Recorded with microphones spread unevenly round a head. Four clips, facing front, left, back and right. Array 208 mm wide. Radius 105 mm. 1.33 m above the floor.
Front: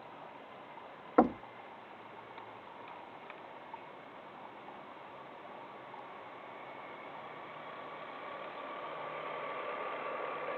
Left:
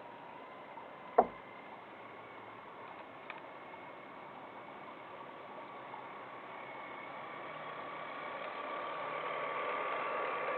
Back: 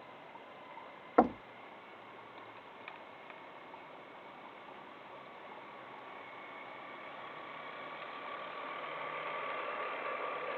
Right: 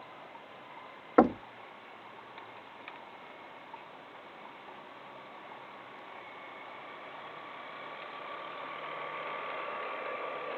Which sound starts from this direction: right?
Knocking, at 1.2 s.